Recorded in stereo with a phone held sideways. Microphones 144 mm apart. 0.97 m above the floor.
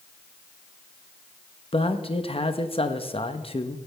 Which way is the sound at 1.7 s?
45° left (ahead or behind).